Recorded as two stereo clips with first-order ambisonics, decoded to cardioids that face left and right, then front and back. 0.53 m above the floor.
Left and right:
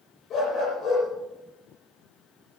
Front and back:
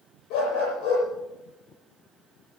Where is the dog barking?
30° left, 7.5 m.